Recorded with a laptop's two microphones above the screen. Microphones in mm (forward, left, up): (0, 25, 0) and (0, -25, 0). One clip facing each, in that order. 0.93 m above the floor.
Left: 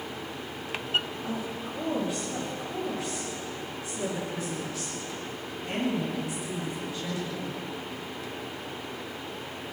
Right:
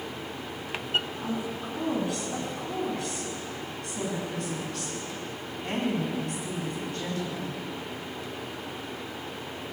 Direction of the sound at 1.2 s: 75° right (ahead or behind).